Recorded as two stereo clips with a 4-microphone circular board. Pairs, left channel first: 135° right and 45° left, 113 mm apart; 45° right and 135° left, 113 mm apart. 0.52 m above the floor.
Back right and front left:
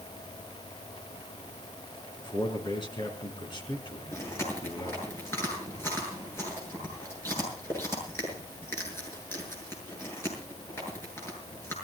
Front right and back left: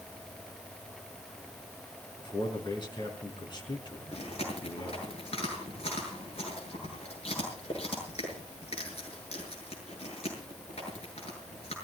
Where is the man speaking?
90° right, 5 m.